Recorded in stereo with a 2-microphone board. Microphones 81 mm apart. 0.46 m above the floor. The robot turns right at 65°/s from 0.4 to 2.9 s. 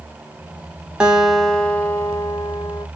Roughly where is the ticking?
No ticking in this recording.